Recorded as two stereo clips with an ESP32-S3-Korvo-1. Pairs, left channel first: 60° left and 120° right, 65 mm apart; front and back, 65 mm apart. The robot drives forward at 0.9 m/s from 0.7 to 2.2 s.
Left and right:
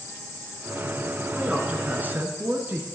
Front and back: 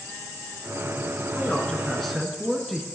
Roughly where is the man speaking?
Ahead right.